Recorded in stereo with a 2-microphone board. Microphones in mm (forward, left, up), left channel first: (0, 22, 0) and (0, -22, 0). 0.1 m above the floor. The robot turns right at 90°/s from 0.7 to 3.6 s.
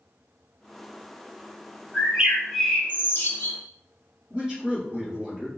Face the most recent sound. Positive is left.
turn(degrees=-15)  # may be behind; listen again after turning